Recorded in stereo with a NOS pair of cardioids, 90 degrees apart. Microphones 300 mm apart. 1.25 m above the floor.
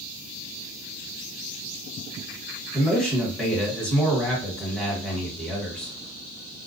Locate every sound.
2.7 s a man speaking: 5° left, 1.4 m